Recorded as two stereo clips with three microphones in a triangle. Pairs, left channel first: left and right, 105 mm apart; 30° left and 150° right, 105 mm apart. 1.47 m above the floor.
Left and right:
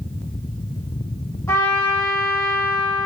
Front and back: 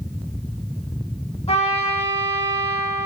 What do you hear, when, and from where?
1.5 s a trumpet: 30° left, 1.3 m